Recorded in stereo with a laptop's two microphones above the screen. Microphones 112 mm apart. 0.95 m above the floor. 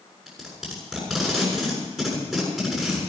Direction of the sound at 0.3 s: 5° right (ahead or behind).